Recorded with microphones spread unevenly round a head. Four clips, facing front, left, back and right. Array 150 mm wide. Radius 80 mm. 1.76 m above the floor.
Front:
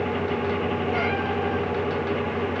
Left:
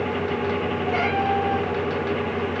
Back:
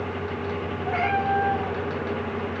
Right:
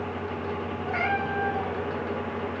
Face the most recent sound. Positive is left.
turn(degrees=150)